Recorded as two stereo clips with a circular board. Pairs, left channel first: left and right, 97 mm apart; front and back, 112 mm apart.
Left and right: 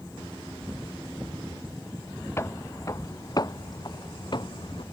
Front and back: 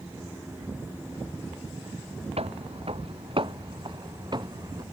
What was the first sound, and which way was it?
Footsteps, 155° left.